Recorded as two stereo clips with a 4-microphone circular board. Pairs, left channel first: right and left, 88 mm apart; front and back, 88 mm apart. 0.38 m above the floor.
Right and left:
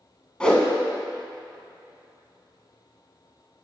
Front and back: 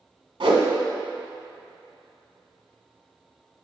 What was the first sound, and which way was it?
A whoosh, 170° right.